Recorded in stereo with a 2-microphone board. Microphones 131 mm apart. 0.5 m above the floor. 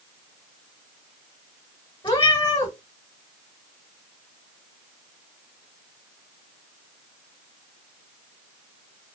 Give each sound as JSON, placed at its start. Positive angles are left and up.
{"t": 2.0, "sound": "a cat meowing", "side_deg": 35, "distance_m": 1.2}